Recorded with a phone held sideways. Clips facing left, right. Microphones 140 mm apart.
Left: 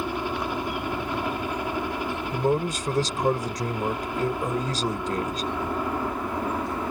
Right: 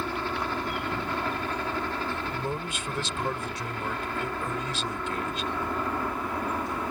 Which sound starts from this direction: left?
A man speaking, at 2.3 s.